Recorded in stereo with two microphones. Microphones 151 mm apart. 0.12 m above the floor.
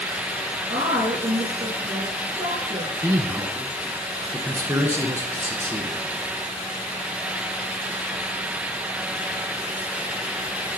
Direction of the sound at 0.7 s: 50° right (ahead or behind).